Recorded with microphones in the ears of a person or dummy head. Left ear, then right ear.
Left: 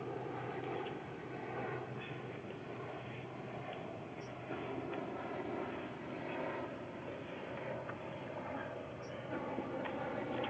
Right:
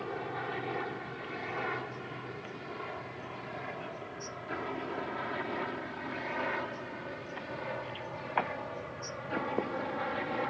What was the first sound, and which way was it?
A helicopter, 60° right (ahead or behind).